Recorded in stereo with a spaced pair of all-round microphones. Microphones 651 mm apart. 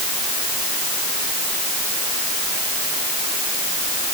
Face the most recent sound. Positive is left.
No sound to turn to.